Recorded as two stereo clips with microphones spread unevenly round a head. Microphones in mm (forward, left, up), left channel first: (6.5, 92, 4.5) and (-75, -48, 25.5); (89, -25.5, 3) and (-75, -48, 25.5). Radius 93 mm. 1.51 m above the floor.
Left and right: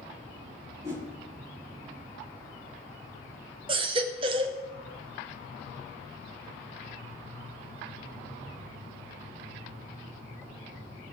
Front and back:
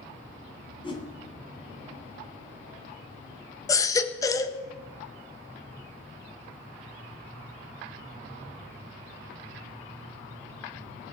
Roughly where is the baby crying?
Ahead right.